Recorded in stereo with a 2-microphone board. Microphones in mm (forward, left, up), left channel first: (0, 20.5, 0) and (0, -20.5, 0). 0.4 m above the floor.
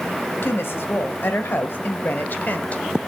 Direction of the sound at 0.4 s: 60° left (ahead or behind).